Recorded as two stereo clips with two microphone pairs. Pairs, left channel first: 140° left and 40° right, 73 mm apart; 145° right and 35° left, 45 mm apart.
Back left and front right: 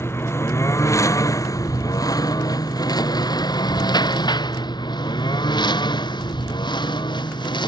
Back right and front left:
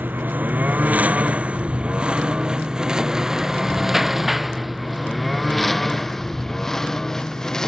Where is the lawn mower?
85° left; by 7.7 s 140° left.